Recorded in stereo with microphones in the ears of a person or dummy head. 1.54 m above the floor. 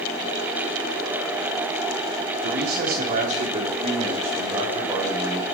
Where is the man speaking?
55° right (ahead or behind), 4 m; by 5.5 s 10° right (ahead or behind), 5 m.